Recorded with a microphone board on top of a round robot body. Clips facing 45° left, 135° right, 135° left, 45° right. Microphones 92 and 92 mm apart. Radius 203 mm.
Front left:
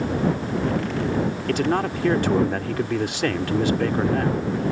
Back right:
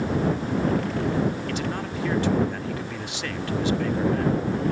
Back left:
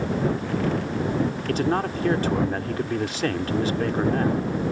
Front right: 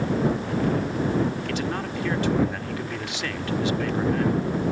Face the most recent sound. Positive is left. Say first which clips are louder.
# front left 7 dB, back left 5 dB
turn(degrees=85)